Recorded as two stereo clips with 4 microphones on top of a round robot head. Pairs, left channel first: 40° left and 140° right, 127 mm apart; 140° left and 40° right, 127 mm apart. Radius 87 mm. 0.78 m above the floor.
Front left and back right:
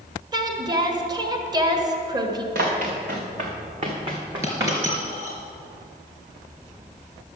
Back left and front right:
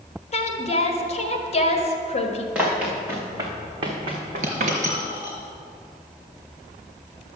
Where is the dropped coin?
75° right, 3.5 m.